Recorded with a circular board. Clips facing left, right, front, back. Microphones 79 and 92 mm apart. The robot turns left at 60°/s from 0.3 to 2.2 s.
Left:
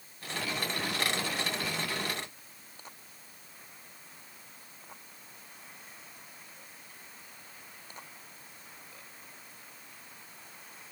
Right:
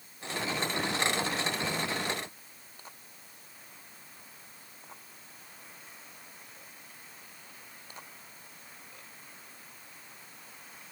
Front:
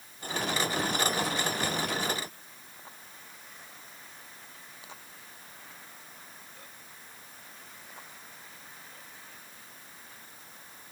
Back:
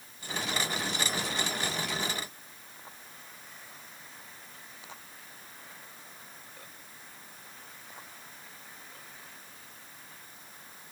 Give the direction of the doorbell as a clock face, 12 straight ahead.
No doorbell in this recording.